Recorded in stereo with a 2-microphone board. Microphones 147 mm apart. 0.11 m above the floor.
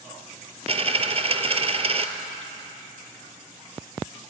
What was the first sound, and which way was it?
A dropped coin, 45° right (ahead or behind).